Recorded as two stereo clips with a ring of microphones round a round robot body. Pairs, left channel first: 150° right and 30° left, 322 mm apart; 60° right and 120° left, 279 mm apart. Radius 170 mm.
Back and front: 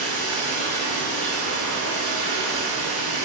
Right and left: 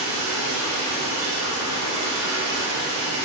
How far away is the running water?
About 1.7 m.